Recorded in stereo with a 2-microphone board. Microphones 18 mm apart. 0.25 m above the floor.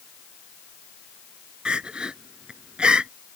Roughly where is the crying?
Right.